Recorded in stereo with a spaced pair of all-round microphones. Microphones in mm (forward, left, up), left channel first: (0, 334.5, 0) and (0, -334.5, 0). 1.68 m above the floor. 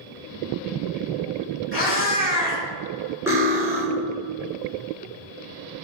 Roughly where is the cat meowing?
Centre.